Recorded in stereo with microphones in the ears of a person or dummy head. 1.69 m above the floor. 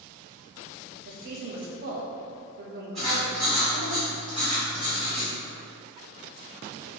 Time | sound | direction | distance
1.1 | a woman speaking | 55° right (ahead or behind) | 0.6 m
3.0 | writing | 5° right (ahead or behind) | 1.1 m